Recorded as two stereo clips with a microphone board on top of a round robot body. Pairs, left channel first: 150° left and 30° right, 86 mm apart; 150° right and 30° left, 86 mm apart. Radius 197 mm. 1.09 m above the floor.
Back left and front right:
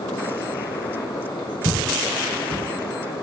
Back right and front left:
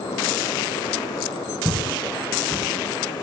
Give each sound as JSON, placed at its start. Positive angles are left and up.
{"t": 1.6, "sound": "footsteps", "azimuth_deg": -60, "distance_m": 9.5}